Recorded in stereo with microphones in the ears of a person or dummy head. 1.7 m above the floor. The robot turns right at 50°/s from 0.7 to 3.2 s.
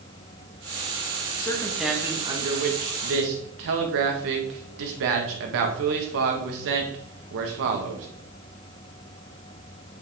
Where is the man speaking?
160° left, 1.6 m; by 8.1 s 110° right, 1.6 m.